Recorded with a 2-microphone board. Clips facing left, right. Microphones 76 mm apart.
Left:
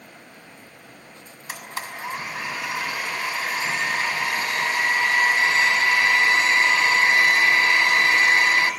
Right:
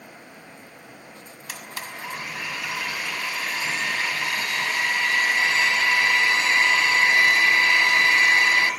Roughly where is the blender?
Left.